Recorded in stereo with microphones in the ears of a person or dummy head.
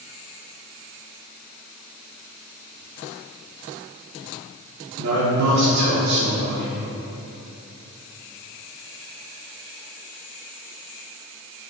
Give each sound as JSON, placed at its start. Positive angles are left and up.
{"t": 5.0, "sound": "a man speaking", "side_deg": -70, "distance_m": 0.5}